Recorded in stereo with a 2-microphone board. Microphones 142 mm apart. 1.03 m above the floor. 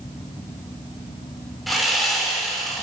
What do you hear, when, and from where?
1.7 s sawing: centre (ahead or behind), 4 m